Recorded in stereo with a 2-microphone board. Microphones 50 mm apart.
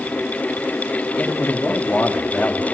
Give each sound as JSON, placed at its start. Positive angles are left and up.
{"t": 1.2, "sound": "a man speaking", "side_deg": 55, "distance_m": 2.0}